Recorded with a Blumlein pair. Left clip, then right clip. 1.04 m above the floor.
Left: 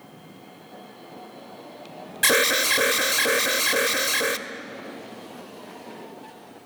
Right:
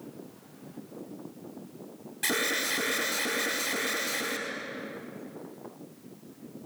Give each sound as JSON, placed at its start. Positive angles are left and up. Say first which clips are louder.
{"t": 2.2, "sound": "an alarm", "louder": "left 9 dB", "azimuth_deg": 65, "distance_m": 1.5}